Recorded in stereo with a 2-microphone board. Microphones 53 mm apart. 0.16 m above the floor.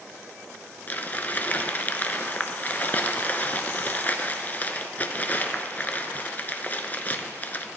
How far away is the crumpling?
About 0.6 m.